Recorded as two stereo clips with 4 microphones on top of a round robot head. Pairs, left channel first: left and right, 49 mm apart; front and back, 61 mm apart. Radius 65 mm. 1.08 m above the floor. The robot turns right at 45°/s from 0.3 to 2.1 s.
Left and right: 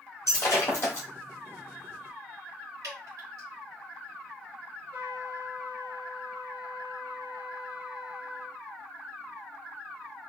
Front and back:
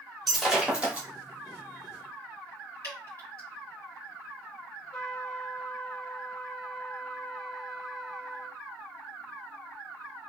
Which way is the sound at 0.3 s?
85° left.